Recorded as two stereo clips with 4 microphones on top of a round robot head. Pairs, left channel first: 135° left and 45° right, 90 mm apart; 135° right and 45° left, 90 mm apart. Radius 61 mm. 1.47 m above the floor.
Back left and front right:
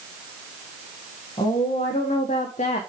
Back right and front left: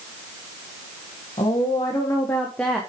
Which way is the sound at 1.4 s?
175° left.